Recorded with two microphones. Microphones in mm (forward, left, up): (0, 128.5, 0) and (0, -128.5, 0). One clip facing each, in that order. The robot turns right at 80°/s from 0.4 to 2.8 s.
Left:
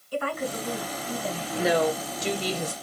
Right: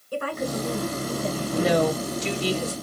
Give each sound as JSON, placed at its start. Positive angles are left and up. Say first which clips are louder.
{"t": 0.1, "sound": "a woman speaking", "louder": "right 2 dB", "azimuth_deg": -105, "distance_m": 1.8}
{"t": 1.6, "sound": "a woman speaking", "louder": "right 2 dB", "azimuth_deg": -5, "distance_m": 1.6}